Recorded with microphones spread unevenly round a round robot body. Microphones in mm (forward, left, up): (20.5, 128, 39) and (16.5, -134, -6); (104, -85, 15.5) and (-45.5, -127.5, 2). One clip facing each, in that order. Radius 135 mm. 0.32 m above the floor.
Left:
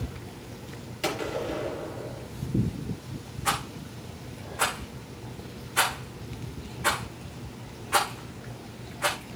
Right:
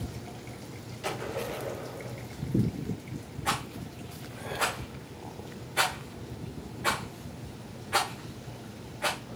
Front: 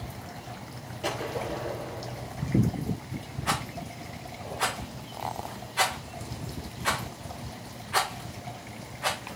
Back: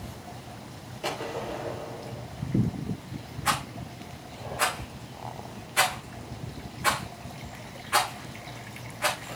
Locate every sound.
1.0 s a gunshot: 110° left, 4.5 m
3.5 s a rattle: 165° left, 5.5 m